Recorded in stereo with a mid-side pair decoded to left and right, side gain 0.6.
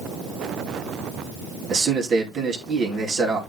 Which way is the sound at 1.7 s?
40° right.